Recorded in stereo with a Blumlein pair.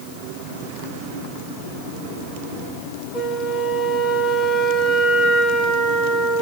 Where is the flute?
10° left, 1.3 m.